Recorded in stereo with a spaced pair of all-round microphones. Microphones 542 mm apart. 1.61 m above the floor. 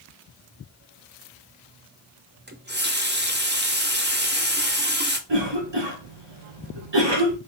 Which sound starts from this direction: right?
A cough, at 5.3 s.